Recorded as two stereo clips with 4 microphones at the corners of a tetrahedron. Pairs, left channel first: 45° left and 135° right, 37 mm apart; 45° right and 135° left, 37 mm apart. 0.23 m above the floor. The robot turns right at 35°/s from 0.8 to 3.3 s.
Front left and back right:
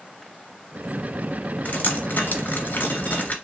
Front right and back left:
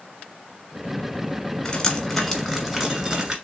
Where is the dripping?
10° left, 1.2 m; by 3.4 s 70° left, 1.2 m.